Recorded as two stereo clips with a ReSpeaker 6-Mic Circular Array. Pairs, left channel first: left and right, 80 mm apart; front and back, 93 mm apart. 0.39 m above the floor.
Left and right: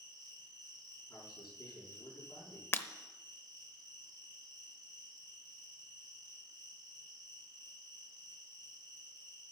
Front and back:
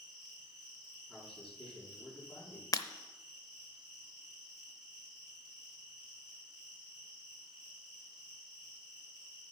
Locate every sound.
0.0 s an insect: 95° left, 5.5 m
1.1 s a man speaking: 85° left, 5 m
2.7 s breaking glass: 35° left, 0.7 m